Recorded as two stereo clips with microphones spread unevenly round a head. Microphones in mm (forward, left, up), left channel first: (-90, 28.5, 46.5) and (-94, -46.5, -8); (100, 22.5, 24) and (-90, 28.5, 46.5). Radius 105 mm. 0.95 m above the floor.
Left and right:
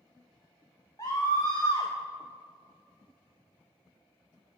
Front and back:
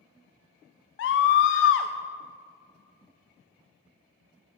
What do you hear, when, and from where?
1.0 s a scream: 10° left, 0.5 m